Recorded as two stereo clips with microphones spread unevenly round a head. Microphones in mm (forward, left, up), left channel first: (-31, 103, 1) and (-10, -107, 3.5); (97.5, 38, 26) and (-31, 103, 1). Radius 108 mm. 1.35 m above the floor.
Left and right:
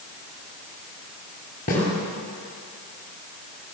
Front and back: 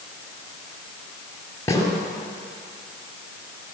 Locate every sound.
1.7 s a snare drum: 40° left, 6.5 m